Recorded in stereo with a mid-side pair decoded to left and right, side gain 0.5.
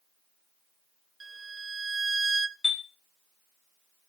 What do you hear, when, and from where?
1.2 s a violin: 25° right, 1.0 m
2.6 s a chime: 20° left, 1.8 m